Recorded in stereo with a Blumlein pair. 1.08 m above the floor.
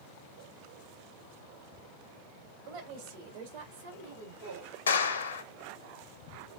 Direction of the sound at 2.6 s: 45° right.